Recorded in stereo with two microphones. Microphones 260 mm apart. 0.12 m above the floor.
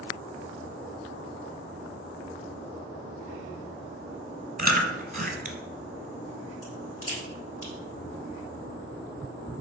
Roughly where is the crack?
Left.